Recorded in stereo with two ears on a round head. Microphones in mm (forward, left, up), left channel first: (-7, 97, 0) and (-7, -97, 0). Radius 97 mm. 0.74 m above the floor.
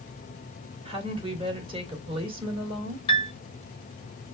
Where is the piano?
25° left (ahead or behind), 1.0 m.